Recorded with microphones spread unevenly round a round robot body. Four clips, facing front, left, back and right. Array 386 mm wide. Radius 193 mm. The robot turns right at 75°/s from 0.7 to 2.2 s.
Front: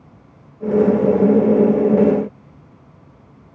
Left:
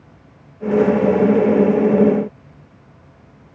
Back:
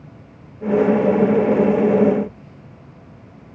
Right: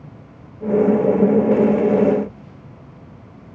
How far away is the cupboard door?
I don't hear a cupboard door.